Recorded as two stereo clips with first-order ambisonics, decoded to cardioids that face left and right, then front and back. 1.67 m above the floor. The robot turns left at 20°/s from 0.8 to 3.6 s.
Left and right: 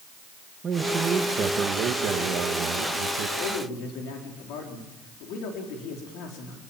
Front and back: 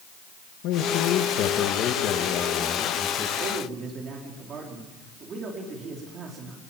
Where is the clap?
No clap in this recording.